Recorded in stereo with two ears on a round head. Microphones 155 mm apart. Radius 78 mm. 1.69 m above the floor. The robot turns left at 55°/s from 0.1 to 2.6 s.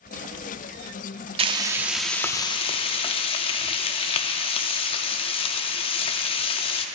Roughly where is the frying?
Behind right.